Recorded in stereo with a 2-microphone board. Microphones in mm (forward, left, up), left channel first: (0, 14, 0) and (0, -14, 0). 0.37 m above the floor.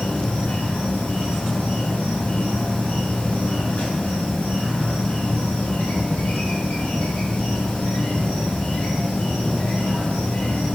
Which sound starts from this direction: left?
An insect, at 0.0 s.